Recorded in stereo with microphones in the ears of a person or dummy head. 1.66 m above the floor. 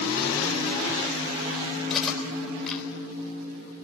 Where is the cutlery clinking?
Centre (ahead or behind), 3.5 m.